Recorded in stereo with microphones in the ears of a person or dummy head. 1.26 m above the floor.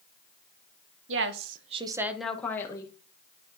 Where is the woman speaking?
75° right (ahead or behind), 0.9 m; by 2.9 s 25° left (ahead or behind), 1.4 m.